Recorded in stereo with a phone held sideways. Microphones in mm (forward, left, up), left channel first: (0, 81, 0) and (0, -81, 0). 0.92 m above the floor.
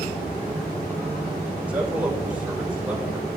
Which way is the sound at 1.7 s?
10° right (ahead or behind).